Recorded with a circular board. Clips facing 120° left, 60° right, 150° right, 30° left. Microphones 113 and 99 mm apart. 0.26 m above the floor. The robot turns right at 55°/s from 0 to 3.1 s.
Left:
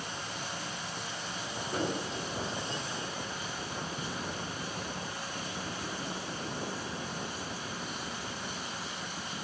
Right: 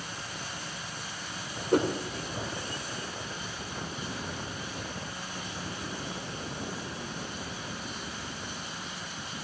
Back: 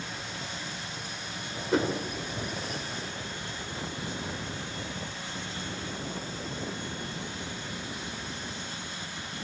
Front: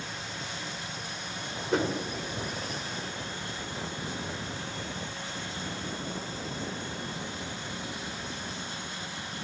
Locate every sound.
1.7 s a whoosh: 65° right, 1.9 m; by 1.9 s 55° right, 1.9 m